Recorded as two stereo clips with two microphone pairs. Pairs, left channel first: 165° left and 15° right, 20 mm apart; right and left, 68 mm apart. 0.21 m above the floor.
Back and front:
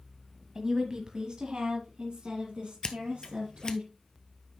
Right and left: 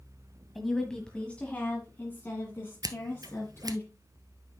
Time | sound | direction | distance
0.6 | a woman speaking | straight ahead | 1.3 m
2.8 | scissors | 110° left | 1.0 m